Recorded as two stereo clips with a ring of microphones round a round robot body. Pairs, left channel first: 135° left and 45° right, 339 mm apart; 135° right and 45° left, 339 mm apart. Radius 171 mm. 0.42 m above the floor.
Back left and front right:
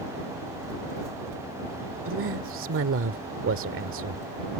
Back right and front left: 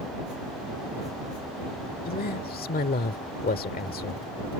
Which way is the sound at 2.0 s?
80° right.